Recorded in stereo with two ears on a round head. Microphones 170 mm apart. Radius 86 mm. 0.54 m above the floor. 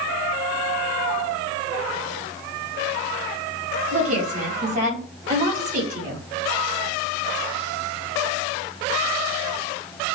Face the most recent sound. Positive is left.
turn(degrees=-45)  # may be behind; listen again after turning